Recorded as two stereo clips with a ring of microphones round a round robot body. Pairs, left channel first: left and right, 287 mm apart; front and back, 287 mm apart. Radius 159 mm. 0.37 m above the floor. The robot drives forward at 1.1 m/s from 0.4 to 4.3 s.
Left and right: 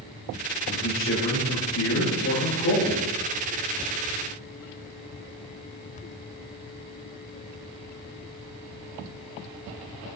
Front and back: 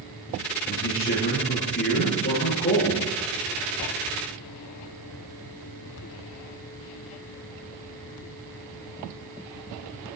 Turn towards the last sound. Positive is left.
turn(degrees=70)